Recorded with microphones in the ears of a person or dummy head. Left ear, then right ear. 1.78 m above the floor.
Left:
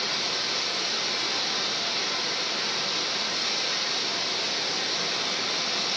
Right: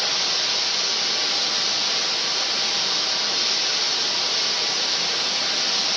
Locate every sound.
0.0 s running water: 50° right (ahead or behind), 2 m